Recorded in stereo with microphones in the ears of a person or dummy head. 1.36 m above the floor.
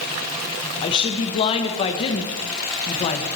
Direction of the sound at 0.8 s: 35° left (ahead or behind).